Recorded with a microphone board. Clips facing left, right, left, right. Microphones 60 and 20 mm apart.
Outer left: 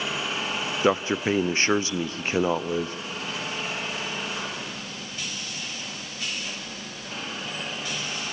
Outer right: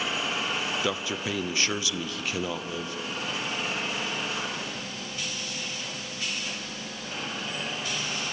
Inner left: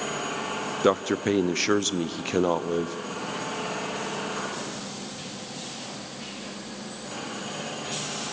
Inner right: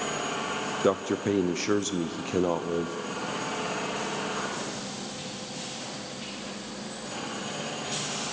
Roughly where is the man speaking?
Left.